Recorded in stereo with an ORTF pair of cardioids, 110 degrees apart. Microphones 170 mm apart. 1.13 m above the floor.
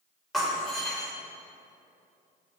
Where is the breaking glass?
Straight ahead, 3 m.